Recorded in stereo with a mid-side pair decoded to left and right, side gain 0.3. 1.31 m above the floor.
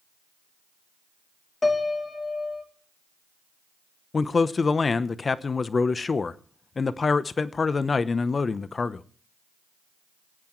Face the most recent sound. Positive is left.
turn(degrees=45)